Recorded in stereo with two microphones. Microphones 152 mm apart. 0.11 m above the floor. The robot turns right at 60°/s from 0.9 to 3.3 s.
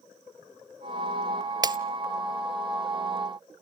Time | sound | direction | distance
1.6 | breaking glass | 25° right (ahead or behind) | 0.5 m